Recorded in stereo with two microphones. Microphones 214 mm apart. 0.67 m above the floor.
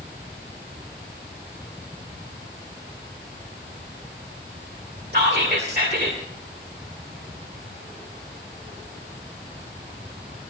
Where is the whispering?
55° right (ahead or behind), 1.9 m.